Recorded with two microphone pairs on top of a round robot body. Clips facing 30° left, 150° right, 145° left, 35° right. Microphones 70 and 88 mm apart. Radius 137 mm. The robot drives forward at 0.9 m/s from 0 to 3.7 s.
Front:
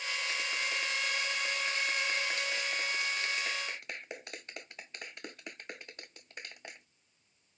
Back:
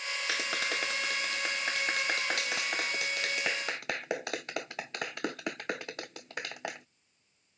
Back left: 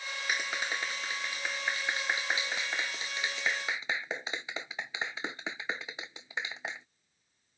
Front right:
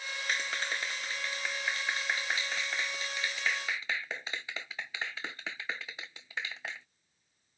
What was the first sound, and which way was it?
A clap, 135° right.